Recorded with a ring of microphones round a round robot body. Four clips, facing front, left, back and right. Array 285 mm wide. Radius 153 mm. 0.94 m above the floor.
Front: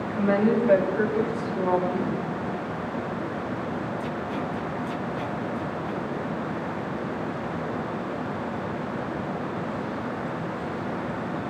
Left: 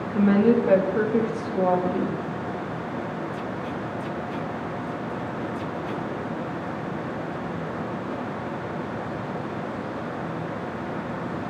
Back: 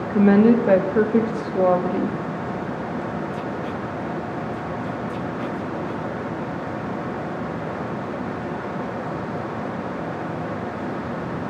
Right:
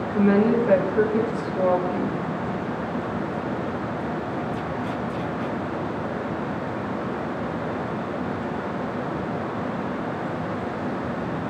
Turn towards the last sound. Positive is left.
turn(degrees=175)